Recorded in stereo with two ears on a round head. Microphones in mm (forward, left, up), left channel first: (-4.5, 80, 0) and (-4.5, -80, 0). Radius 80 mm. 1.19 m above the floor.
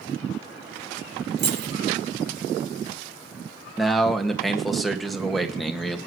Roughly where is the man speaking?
Centre.